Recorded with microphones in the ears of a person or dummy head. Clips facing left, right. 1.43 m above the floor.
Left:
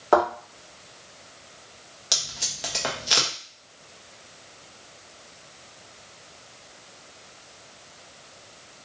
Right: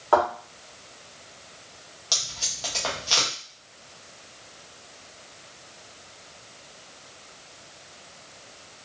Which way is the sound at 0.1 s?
30° left (ahead or behind).